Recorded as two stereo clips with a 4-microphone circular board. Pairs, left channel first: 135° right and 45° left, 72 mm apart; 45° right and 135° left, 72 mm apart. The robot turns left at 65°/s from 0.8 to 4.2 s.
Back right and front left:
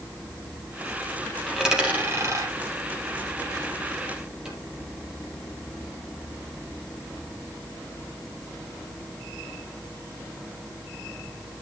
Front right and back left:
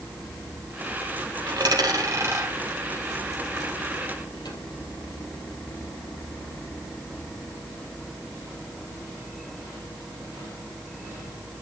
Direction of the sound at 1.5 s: 145° left.